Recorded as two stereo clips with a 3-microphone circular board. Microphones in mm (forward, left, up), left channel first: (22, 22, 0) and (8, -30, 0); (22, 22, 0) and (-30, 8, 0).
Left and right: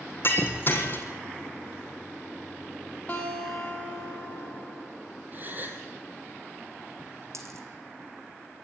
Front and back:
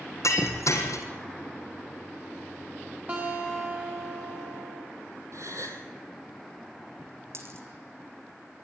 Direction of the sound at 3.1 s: 135° left.